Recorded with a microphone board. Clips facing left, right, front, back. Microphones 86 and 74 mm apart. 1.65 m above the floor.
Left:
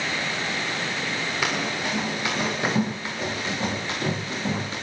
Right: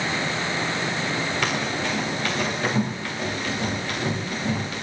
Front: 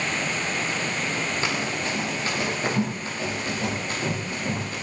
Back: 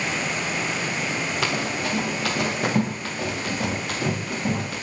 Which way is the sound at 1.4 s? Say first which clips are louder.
Right 1 dB, back 2 dB; 170° left.